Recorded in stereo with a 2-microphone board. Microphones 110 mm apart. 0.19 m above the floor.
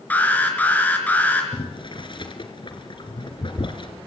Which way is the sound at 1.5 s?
45° left (ahead or behind).